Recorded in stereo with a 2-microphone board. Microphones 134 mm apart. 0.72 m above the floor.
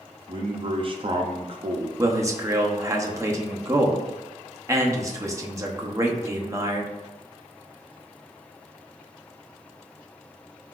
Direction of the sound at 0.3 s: 40° right (ahead or behind).